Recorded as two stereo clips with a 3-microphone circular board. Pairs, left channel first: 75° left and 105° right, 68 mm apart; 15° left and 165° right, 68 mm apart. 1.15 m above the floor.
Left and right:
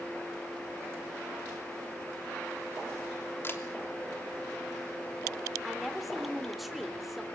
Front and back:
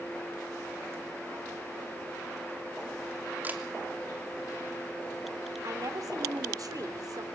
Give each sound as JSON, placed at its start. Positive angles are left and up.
{"t": 3.4, "sound": "a camera shutter", "azimuth_deg": 130, "distance_m": 3.0}
{"t": 5.6, "sound": "a woman speaking", "azimuth_deg": 165, "distance_m": 3.5}